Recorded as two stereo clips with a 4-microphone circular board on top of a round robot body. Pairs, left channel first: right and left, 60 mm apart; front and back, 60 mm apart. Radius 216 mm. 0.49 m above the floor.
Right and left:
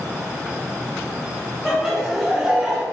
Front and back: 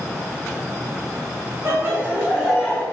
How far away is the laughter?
About 1.4 m.